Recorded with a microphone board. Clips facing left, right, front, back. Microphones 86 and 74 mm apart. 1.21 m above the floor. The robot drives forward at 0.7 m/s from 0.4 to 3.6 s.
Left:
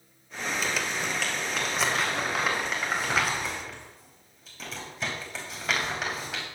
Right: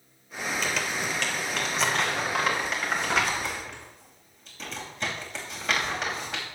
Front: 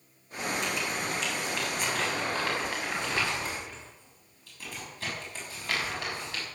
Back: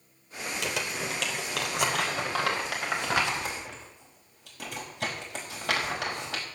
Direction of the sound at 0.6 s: 175° left.